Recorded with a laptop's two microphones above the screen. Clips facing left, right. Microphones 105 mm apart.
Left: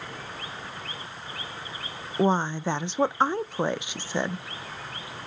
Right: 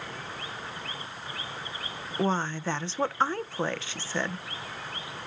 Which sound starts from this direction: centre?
A woman speaking, at 2.2 s.